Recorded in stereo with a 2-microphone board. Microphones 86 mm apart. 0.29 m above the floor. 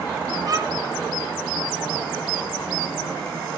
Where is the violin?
45° right (ahead or behind), 0.8 m.